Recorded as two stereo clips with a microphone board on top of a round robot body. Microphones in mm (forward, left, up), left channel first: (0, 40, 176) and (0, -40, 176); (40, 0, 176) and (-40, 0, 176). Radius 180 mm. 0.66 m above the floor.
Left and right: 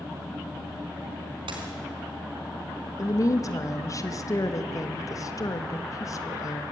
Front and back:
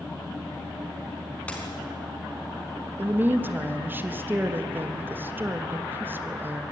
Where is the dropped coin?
75° right, 4 m.